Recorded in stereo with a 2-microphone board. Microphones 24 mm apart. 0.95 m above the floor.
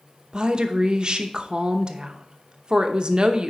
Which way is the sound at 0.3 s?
35° right (ahead or behind).